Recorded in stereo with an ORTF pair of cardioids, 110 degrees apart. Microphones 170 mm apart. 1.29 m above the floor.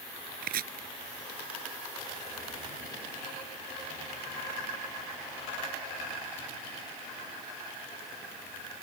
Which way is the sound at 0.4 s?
65° right.